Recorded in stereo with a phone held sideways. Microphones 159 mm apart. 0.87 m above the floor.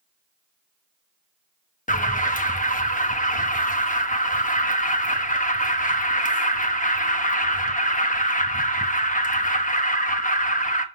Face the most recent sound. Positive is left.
turn(degrees=55)  # may be behind; listen again after turning